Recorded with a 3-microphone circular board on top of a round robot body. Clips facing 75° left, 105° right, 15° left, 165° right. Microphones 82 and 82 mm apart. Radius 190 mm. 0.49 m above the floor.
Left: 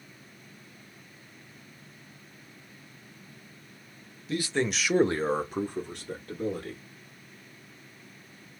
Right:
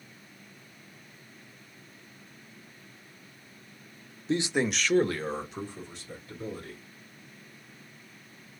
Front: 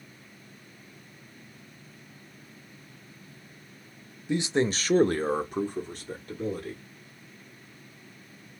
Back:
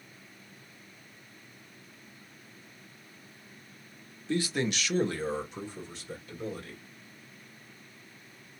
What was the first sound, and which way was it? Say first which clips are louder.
A man speaking: right 1 dB, front 4 dB; 55° right.